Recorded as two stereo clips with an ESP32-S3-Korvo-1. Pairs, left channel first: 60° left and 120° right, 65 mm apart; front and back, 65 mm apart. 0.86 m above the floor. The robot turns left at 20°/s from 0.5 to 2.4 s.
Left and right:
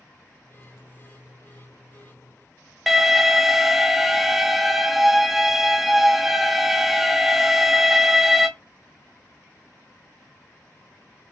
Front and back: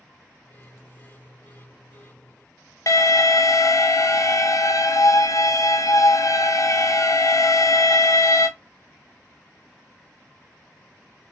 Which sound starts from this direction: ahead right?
An alarm, at 2.9 s.